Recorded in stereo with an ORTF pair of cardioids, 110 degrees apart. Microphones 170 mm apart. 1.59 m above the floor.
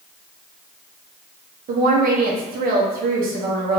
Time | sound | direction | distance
1.7 | a woman speaking | 60° right | 0.9 m